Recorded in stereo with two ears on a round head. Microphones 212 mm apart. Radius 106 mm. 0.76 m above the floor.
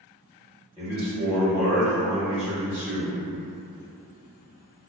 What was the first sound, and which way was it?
A man speaking, 5° left (ahead or behind).